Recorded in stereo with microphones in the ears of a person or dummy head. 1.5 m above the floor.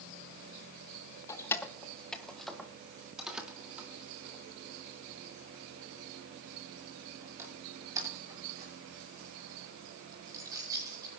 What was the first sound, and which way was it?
Keys jangling, 20° left (ahead or behind).